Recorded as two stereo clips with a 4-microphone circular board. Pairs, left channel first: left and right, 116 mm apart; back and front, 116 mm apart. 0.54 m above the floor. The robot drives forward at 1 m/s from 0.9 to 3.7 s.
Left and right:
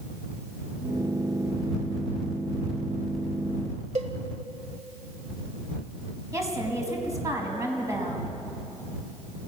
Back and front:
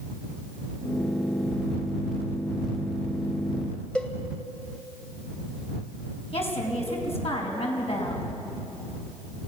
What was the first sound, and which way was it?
A cowbell, 100° right.